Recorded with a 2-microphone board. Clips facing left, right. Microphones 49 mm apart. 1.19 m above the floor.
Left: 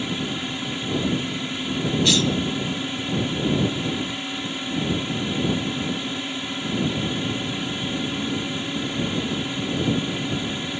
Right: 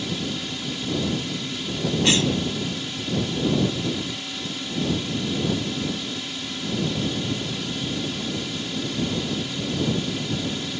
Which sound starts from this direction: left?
A drone, at 0.0 s.